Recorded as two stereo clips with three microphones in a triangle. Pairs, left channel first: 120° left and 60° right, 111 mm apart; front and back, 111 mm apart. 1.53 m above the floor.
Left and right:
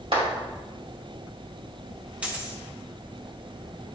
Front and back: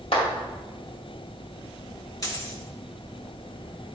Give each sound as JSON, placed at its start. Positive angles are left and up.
{"t": 0.1, "sound": "a clap", "azimuth_deg": -30, "distance_m": 2.5}
{"t": 2.2, "sound": "a dropped coin", "azimuth_deg": 10, "distance_m": 1.2}